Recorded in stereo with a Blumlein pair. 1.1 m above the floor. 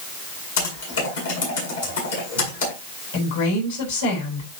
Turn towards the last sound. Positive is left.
turn(degrees=65)